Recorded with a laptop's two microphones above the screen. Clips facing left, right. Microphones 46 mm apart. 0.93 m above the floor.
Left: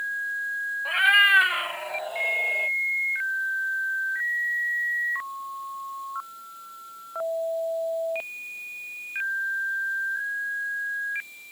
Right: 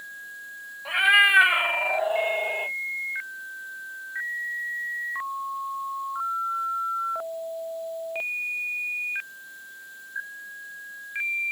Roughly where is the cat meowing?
Centre.